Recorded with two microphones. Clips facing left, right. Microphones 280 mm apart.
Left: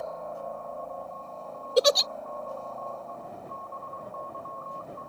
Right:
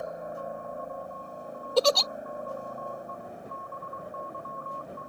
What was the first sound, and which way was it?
A helicopter, 15° right (ahead or behind).